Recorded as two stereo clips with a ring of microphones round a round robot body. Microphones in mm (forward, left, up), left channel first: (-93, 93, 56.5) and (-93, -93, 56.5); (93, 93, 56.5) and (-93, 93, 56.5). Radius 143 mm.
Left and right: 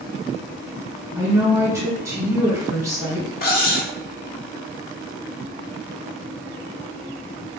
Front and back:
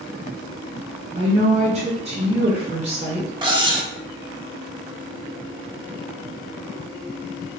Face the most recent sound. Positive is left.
turn(degrees=115)